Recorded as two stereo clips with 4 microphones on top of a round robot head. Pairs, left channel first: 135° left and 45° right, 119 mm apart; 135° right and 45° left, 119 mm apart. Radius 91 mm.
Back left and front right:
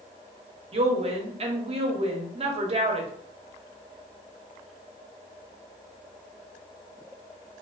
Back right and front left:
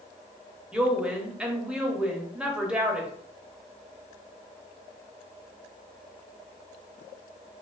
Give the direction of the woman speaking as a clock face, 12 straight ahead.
1 o'clock.